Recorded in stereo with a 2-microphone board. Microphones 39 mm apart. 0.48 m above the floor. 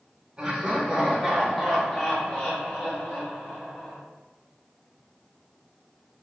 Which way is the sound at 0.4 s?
15° right (ahead or behind).